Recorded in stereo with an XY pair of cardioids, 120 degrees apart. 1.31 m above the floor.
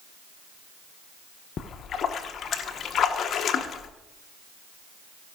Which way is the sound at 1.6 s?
50° left.